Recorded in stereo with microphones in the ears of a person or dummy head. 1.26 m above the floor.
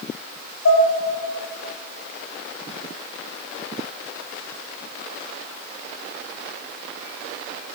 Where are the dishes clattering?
80° left, 1.7 m.